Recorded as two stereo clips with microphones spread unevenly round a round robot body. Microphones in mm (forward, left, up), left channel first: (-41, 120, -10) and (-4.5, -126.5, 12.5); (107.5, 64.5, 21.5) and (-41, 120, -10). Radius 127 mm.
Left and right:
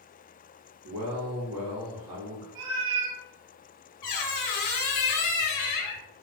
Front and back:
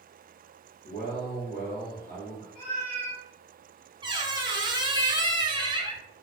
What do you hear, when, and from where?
0.8 s a man speaking: 70° right, 1.2 m
2.5 s a cat meowing: 90° right, 0.6 m
4.0 s a squeak: 100° left, 0.7 m